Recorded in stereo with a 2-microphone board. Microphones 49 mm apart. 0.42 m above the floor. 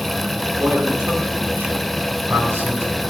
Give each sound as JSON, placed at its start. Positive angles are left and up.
{"t": 0.6, "sound": "a man speaking", "side_deg": -50, "distance_m": 5.0}